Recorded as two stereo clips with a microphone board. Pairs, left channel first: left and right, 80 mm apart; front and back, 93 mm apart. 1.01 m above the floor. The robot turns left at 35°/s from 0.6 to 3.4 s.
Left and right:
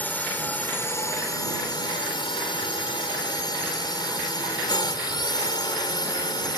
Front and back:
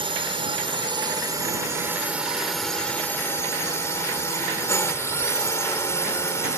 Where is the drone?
160° left; by 6.6 s 60° left.